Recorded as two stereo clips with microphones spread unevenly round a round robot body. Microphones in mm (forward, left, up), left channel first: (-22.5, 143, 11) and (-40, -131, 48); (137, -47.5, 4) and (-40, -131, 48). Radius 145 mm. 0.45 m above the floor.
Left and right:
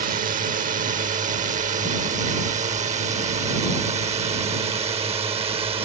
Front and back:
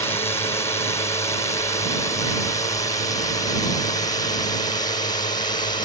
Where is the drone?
35° right; by 5.8 s 20° right.